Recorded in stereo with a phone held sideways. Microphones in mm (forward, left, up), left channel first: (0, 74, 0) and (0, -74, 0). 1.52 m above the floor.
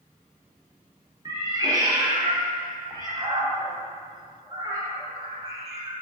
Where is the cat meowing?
25° right (ahead or behind), 0.8 m.